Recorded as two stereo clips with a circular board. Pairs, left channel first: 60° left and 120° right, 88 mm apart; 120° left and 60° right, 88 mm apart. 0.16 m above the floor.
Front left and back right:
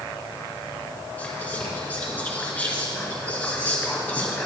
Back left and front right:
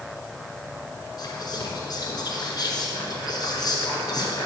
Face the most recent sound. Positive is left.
turn(degrees=125)